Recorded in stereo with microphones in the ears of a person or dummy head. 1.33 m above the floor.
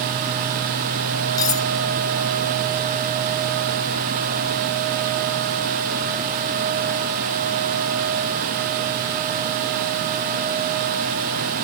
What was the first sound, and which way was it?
Cutlery clinking, 20° left (ahead or behind).